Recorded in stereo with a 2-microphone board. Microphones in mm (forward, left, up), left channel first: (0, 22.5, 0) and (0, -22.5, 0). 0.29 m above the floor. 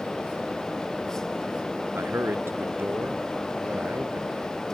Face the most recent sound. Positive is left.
turn(degrees=-50)  # may be behind; listen again after turning